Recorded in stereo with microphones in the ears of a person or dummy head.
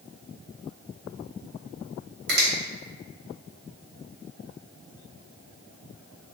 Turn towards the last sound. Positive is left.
turn(degrees=-50)  # may be behind; listen again after turning